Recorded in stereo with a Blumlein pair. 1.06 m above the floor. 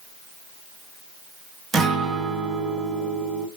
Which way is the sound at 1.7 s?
15° right.